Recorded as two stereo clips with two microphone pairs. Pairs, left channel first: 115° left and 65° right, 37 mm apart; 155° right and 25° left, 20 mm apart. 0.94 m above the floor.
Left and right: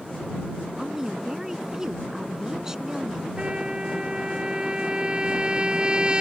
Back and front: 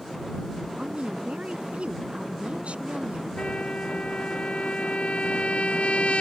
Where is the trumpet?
130° right.